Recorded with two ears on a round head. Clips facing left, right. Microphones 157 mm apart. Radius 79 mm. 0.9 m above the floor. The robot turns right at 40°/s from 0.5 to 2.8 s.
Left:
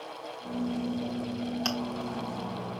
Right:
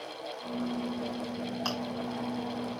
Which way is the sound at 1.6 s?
30° left (ahead or behind).